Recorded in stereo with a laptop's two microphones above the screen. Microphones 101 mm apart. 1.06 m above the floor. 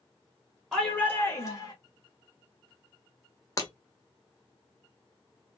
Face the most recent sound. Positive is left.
turn(degrees=35)  # may be behind; listen again after turning